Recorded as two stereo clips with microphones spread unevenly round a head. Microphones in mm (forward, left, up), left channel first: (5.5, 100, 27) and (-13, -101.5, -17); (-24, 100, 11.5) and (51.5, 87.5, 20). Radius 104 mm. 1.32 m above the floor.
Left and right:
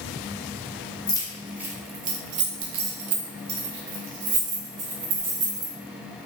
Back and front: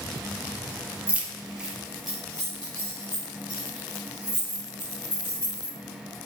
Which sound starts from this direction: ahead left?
Keys jangling, at 1.1 s.